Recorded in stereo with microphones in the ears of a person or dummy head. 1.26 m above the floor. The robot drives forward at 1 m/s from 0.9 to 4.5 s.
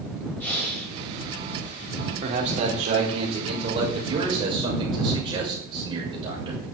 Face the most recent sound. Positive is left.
turn(degrees=-25)  # may be behind; listen again after turning